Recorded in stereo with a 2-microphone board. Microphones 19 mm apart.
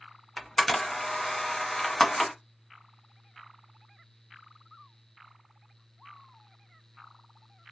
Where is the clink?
I don't hear a clink.